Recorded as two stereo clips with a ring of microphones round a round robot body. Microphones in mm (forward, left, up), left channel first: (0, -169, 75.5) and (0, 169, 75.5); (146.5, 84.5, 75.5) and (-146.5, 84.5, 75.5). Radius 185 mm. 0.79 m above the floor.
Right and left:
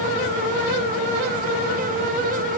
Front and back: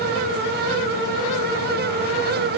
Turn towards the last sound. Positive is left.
No sound to turn to.